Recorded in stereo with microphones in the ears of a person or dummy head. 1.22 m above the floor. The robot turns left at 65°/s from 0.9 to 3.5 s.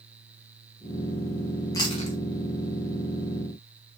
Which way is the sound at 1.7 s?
15° left (ahead or behind).